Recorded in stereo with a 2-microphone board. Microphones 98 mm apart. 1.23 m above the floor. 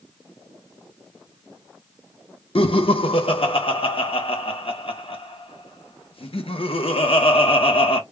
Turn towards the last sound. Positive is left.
turn(degrees=70)  # may be behind; listen again after turning